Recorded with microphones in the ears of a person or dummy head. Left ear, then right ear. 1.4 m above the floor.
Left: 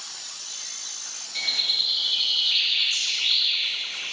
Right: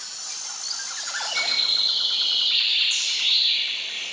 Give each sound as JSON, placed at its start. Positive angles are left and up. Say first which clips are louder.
{"t": 1.4, "sound": "a bird", "louder": "right 1 dB", "side_deg": -20, "distance_m": 1.6}